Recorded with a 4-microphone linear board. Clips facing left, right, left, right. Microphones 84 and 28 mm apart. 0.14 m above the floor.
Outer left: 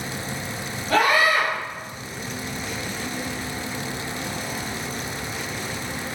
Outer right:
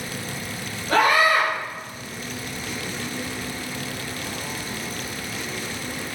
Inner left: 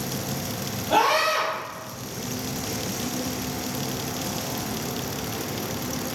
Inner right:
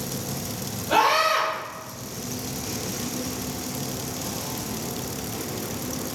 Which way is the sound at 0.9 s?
30° right (ahead or behind).